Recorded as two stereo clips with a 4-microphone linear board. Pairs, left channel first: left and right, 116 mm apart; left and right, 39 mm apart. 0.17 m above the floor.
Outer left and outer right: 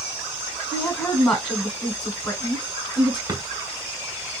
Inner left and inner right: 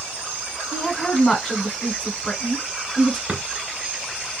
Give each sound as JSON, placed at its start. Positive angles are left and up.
{"t": 0.7, "sound": "a woman speaking", "side_deg": 5, "distance_m": 1.3}
{"t": 3.3, "sound": "a drawer", "side_deg": -35, "distance_m": 0.9}